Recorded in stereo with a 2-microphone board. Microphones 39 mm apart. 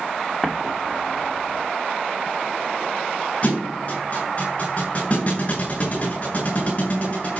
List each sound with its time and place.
0.4 s an explosion: centre (ahead or behind), 2 m
3.4 s a thud: 35° left (ahead or behind), 6.5 m